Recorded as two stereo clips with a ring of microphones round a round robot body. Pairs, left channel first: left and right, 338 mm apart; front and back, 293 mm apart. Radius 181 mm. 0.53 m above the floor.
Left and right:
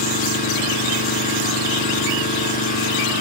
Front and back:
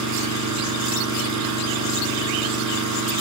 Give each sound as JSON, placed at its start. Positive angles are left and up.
{"t": 0.0, "sound": "an engine running", "azimuth_deg": 160, "distance_m": 7.0}